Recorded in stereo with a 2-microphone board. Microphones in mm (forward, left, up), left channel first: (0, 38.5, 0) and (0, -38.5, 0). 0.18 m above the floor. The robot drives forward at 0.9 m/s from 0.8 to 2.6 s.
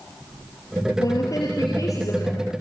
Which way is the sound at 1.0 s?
50° left (ahead or behind).